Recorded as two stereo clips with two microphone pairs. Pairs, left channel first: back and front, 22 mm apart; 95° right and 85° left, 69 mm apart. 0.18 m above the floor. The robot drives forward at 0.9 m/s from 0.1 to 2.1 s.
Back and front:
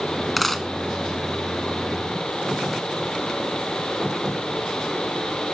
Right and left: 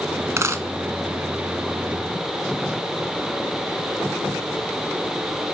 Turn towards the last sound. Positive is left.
turn(degrees=165)